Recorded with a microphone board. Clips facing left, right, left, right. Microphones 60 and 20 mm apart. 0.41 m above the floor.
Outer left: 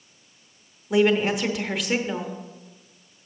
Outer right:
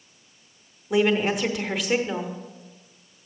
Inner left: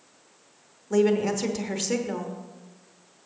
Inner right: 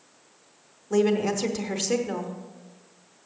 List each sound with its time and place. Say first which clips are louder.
0.9 s a woman speaking: outer left 1 dB, inner left 1 dB; centre (ahead or behind), 0.8 m